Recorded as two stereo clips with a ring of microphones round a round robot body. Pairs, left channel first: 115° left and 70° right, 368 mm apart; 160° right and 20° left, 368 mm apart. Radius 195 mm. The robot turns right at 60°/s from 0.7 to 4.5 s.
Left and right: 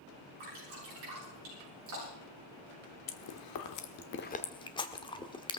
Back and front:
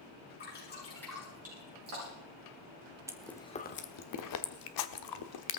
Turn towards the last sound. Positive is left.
turn(degrees=-170)